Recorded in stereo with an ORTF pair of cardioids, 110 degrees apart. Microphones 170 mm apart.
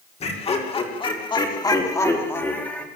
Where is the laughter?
40° left, 6 m; by 2.9 s 5° left, 4.5 m.